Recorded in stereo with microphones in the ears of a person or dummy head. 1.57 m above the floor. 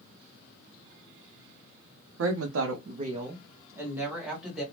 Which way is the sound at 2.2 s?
75° right (ahead or behind).